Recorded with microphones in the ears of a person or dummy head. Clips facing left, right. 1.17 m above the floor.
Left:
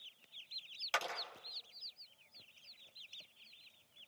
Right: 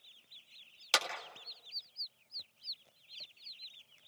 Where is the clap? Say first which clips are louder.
Right 3 dB; 55° right (ahead or behind), 2 m.